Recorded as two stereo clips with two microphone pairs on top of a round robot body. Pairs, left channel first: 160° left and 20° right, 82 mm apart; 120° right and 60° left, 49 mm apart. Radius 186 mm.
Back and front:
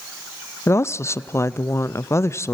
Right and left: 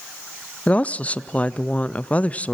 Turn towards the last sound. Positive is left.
turn(degrees=-170)